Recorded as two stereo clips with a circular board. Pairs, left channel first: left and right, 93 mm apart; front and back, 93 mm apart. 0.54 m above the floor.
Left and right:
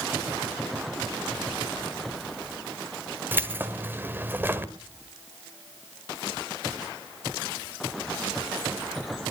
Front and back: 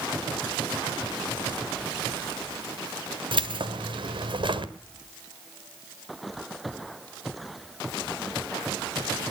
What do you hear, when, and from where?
3.3 s keys jangling: 155° right, 1.4 m